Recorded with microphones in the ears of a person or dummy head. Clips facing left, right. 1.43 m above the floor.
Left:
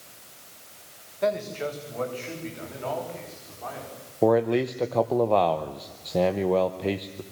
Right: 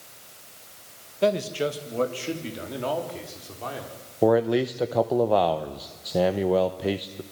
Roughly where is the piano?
No piano in this recording.